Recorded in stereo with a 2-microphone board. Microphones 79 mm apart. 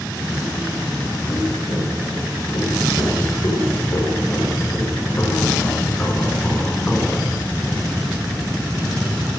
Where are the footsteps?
65° left (ahead or behind), 5.5 m; by 7.3 s 10° left (ahead or behind), 3 m.